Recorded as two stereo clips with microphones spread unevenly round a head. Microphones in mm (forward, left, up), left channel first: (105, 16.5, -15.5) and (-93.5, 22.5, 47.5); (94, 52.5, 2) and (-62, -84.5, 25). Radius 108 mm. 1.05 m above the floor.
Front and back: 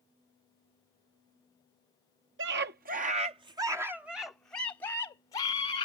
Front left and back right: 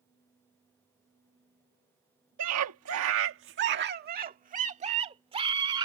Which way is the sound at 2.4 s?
140° right.